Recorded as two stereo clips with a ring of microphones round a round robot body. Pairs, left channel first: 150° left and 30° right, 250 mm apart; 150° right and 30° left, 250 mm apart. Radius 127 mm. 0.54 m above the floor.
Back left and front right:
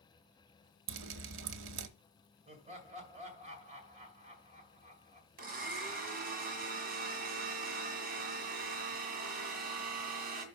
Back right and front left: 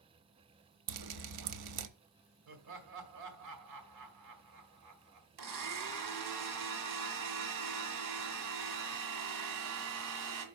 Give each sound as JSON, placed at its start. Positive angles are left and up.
{"t": 0.9, "sound": "dripping", "azimuth_deg": 10, "distance_m": 0.7}
{"t": 2.5, "sound": "laughter", "azimuth_deg": 35, "distance_m": 2.0}
{"t": 5.4, "sound": "a blender", "azimuth_deg": 25, "distance_m": 1.8}